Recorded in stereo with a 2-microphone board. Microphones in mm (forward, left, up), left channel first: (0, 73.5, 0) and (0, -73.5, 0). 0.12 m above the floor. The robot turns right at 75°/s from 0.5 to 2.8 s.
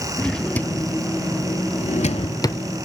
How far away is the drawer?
About 0.5 m.